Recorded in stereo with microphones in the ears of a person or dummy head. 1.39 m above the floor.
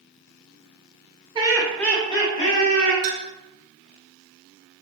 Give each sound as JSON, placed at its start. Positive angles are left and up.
{"t": 1.4, "sound": "laughter", "side_deg": -25, "distance_m": 0.5}
{"t": 3.0, "sound": "a clink", "side_deg": -65, "distance_m": 0.6}